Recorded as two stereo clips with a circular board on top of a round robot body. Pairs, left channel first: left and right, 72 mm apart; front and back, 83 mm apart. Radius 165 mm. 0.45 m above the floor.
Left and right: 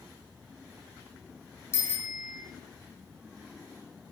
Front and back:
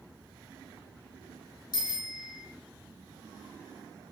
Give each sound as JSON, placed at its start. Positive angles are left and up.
{"t": 1.7, "sound": "a bicycle bell", "azimuth_deg": 35, "distance_m": 7.0}